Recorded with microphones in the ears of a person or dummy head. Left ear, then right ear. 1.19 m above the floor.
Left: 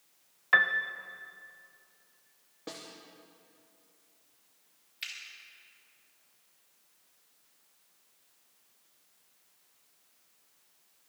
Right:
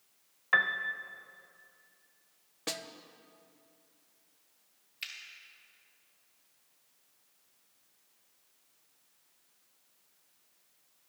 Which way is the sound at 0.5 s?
Centre (ahead or behind).